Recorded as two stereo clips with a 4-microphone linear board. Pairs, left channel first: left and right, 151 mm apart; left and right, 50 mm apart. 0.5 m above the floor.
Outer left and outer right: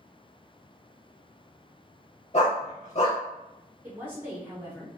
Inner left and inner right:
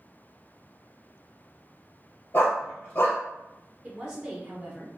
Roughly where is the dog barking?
Left.